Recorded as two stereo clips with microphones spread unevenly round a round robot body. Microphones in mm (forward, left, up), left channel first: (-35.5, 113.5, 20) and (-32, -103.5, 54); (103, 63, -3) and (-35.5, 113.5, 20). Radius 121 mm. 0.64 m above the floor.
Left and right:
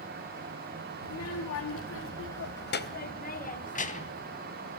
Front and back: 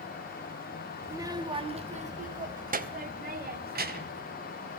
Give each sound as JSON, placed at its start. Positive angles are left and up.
{"t": 1.0, "sound": "a child speaking", "azimuth_deg": 85, "distance_m": 1.3}